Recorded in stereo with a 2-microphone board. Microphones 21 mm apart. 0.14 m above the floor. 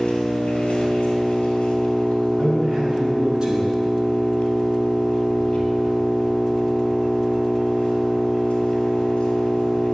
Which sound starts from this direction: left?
An engine running, at 0.0 s.